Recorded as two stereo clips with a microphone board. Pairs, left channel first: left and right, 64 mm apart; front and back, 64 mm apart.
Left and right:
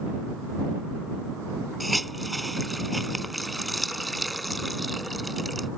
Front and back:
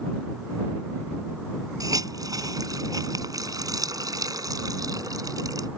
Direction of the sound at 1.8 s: Straight behind.